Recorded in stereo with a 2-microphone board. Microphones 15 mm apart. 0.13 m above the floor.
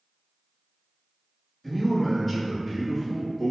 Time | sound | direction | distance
1.6 | a man speaking | 20° left (ahead or behind) | 1.3 m